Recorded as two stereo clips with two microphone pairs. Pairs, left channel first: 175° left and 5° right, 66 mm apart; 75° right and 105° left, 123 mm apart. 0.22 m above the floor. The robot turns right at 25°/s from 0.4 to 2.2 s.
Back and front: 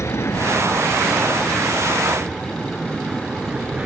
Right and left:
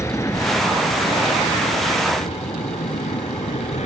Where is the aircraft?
140° right; by 3.9 s 75° right.